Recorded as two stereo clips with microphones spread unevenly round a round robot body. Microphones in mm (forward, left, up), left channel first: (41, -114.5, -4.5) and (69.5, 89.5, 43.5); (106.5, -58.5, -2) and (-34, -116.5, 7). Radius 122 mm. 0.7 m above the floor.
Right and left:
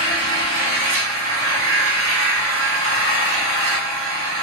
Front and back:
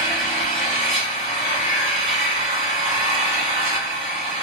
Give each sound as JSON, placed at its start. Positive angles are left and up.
{"t": 0.0, "sound": "an engine running", "azimuth_deg": 120, "distance_m": 1.4}